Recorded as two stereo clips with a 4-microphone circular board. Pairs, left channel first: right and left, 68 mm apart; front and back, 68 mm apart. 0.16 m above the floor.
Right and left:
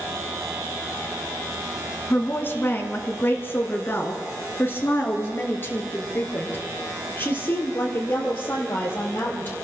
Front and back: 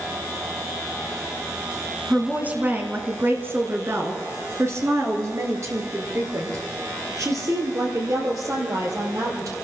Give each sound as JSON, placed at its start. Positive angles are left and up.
{"t": 2.1, "sound": "a woman speaking", "azimuth_deg": -120, "distance_m": 1.6}